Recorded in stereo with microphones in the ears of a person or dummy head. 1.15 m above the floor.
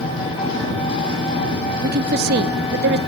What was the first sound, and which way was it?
An engine running, 20° left (ahead or behind).